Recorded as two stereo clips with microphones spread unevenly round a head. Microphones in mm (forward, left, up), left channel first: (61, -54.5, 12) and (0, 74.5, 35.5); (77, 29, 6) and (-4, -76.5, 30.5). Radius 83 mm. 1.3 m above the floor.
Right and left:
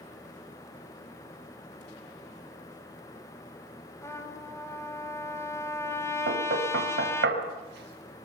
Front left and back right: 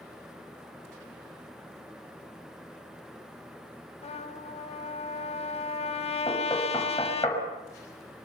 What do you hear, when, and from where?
4.0 s a trumpet: 10° left, 3.5 m
6.3 s knocking: 125° left, 6 m